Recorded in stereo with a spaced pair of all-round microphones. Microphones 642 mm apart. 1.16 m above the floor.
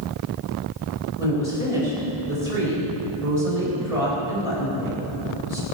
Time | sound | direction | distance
1.2 | a woman speaking | 85° right | 5 m